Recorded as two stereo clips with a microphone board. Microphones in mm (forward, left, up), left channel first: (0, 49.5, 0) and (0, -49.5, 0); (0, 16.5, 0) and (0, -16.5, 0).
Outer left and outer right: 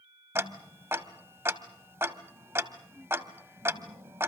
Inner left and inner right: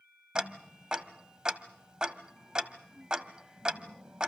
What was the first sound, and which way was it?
Ticking, 25° right (ahead or behind).